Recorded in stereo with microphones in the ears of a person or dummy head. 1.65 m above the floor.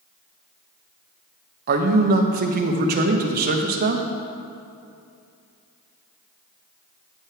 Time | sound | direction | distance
1.7 | a man speaking | 45° right (ahead or behind) | 0.9 m